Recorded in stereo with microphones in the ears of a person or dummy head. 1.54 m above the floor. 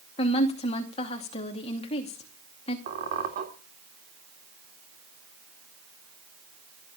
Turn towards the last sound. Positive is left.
turn(degrees=-45)  # may be behind; listen again after turning